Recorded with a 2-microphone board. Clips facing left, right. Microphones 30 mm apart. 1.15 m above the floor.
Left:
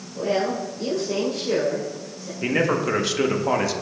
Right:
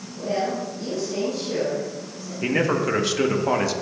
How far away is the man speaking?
About 0.8 m.